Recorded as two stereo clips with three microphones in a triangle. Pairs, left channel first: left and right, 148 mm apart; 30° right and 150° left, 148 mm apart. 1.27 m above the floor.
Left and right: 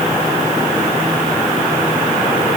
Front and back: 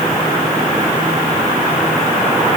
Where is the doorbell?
No doorbell in this recording.